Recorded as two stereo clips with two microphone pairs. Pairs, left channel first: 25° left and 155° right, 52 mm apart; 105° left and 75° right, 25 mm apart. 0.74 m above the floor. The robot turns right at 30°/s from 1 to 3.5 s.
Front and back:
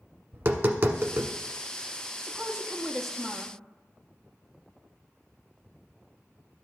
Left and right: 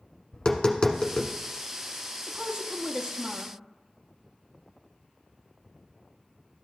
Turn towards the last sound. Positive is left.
turn(degrees=-50)